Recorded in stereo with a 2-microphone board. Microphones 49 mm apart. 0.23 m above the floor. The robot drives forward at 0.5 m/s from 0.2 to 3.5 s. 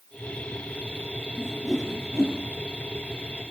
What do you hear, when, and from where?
1.4 s a whoosh: centre (ahead or behind), 1.2 m